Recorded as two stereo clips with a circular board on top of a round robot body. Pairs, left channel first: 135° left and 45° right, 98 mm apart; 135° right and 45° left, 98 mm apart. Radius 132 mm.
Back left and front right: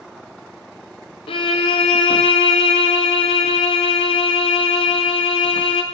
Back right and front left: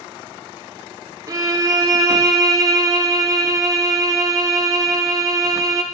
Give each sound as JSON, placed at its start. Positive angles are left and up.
{"t": 1.3, "sound": "a violin", "azimuth_deg": 100, "distance_m": 0.6}